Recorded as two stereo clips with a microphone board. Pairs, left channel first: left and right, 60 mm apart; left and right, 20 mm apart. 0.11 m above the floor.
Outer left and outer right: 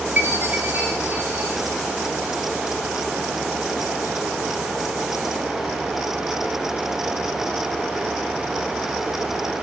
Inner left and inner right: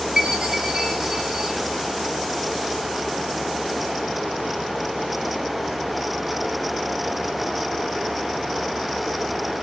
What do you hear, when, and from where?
0.2 s a chime: 25° right (ahead or behind), 7.5 m